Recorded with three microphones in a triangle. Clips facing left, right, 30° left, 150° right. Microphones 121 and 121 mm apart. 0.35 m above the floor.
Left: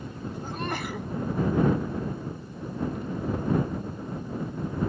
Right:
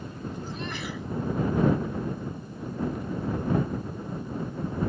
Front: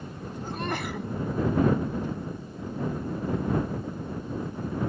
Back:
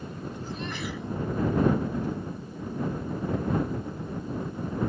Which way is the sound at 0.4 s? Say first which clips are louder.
Left 3 dB, front 5 dB; 60° left.